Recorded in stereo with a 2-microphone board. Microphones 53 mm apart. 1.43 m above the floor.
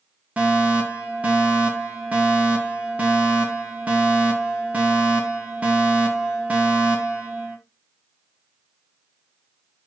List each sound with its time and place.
0.4 s a fire alarm: 25° right (ahead or behind), 3.5 m